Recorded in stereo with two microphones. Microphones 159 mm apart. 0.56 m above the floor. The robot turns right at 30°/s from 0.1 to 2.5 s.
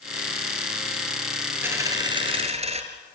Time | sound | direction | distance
1.6 | a dropped coin | 15° right (ahead or behind) | 2 m